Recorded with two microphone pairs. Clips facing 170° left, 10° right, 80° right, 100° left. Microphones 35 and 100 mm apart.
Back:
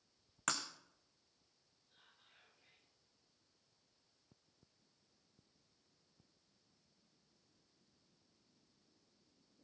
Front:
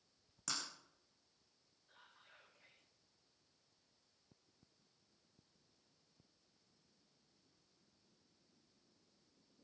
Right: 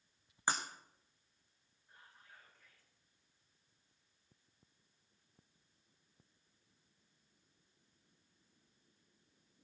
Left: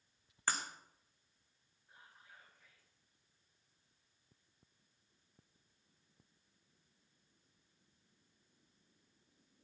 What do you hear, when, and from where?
0.5 s breaking glass: 155° right, 2.5 m
1.9 s whispering: 20° left, 8.5 m